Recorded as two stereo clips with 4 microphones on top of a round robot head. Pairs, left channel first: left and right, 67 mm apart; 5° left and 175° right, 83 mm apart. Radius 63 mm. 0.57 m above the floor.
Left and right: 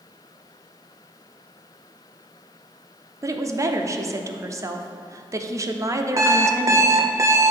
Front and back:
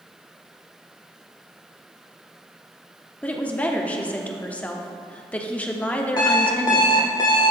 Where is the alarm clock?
45° right, 0.9 m.